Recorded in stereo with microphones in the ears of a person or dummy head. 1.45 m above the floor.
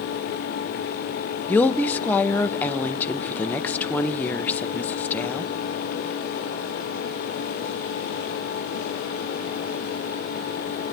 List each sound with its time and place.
1.5 s a woman speaking: 10° left (ahead or behind), 0.5 m